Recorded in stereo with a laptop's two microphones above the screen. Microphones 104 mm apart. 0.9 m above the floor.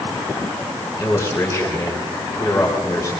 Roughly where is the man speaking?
Left.